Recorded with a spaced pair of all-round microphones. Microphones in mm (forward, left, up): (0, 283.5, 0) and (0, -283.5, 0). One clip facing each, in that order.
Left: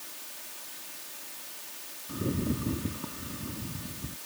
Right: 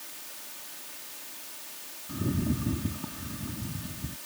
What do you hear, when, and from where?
2.1 s a rattle: 15° right (ahead or behind)